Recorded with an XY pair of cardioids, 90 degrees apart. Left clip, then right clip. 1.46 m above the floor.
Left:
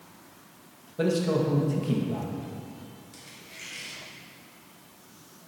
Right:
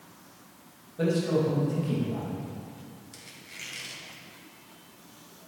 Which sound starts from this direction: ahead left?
A man speaking, at 1.0 s.